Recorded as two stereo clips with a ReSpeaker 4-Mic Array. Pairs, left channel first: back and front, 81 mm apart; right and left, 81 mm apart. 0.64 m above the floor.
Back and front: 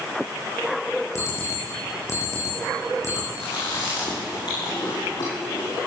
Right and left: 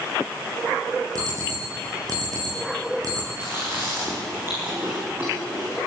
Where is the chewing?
150° left, 9 m.